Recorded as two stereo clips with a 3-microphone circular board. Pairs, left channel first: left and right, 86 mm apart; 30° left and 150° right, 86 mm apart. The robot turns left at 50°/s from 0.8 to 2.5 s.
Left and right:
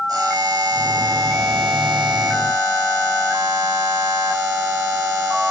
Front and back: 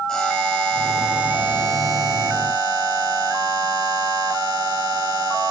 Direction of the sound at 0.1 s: 50° right.